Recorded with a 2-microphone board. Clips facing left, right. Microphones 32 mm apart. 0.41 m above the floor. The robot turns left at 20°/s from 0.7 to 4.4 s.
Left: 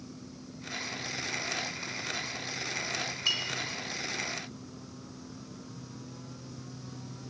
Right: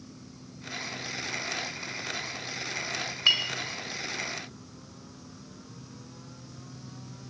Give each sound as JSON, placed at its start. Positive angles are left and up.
{"t": 3.3, "sound": "a clink", "side_deg": -35, "distance_m": 1.0}